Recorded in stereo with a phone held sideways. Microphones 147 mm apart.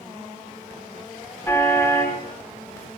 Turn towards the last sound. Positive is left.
turn(degrees=20)  # may be behind; listen again after turning